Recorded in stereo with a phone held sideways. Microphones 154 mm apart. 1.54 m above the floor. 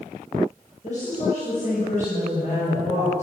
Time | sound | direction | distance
0.8 | a woman speaking | 50° left (ahead or behind) | 8.5 m